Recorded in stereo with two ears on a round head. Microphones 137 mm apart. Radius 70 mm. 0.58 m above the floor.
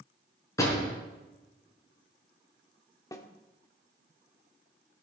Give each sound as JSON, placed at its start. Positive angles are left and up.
{"t": 0.6, "sound": "a door slam", "side_deg": 20, "distance_m": 5.5}
{"t": 3.1, "sound": "a snare drum", "side_deg": 25, "distance_m": 1.5}